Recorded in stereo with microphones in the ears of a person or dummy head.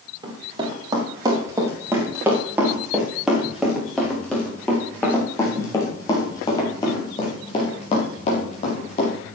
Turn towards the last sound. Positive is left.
turn(degrees=35)  # may be behind; listen again after turning